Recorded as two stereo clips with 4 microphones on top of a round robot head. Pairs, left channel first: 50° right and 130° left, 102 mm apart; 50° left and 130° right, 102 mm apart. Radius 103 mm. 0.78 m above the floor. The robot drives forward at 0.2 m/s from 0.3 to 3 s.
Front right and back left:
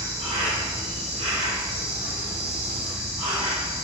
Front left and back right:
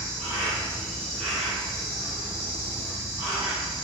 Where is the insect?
105° left, 0.8 m; by 3.9 s 150° left, 1.0 m.